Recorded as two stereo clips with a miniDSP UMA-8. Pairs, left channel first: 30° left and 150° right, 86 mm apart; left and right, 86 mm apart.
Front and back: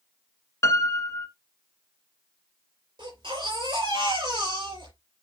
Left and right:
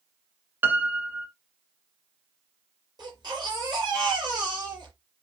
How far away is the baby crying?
About 6.5 m.